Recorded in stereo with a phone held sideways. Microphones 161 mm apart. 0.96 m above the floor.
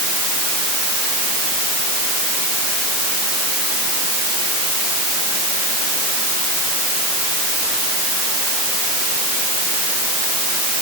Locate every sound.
Only background noise.